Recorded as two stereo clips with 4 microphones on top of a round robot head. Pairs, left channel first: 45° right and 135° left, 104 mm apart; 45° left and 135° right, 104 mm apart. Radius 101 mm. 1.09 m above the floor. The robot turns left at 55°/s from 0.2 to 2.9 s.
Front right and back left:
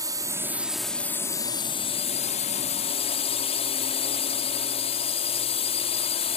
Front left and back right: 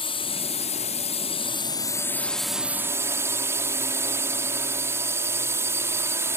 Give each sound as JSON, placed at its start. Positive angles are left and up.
{"t": 0.0, "sound": "a drone", "azimuth_deg": 80}